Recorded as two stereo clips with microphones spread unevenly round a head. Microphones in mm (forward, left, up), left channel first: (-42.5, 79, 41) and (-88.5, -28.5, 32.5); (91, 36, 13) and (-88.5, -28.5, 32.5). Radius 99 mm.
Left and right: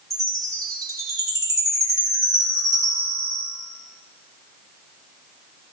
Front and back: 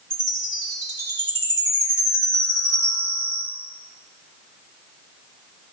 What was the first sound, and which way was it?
A chime, 170° right.